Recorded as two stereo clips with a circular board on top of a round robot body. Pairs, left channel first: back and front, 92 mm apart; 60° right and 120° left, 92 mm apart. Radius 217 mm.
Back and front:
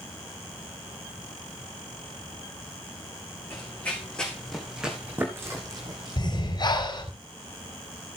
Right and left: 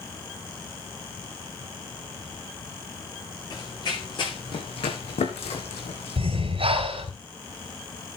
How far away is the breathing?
About 4 m.